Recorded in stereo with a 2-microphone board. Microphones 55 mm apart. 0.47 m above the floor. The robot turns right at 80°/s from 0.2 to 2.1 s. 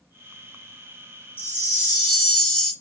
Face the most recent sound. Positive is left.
turn(degrees=175)